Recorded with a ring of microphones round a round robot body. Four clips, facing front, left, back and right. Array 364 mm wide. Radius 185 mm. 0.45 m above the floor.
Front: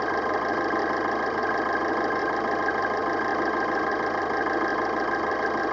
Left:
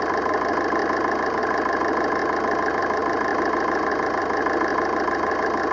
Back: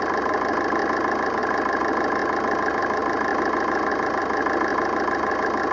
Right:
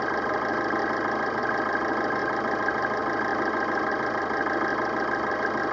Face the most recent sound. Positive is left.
turn(degrees=135)